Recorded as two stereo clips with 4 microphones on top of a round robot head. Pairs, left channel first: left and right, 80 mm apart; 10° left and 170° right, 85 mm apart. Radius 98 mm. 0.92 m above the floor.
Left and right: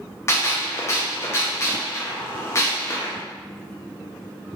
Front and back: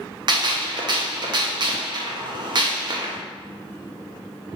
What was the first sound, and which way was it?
A gunshot, 150° left.